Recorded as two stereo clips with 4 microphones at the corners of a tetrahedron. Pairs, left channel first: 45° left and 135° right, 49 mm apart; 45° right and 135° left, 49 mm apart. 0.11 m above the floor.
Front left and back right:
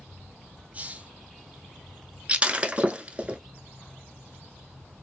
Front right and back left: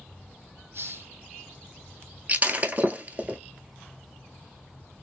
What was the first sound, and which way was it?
A hiss, 165° left.